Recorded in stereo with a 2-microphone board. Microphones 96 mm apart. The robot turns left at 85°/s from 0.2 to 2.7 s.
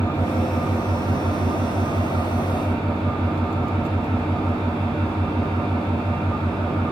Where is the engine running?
30° left, 2.5 m; by 6.9 s 175° left, 2.5 m.